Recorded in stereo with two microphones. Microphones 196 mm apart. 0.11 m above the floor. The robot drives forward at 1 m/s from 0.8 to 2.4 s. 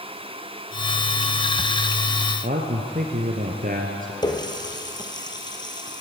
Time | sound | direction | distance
2.4 | a man speaking | 45° right (ahead or behind) | 2 m
4.2 | a running tap | 20° left (ahead or behind) | 1.9 m